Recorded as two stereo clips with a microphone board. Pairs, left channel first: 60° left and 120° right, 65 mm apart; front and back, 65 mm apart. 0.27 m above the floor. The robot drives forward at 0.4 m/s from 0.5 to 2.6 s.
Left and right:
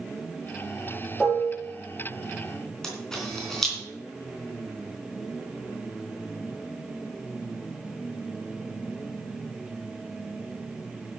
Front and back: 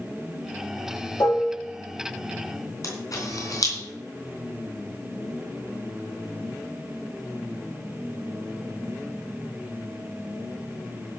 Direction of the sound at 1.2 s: 30° right.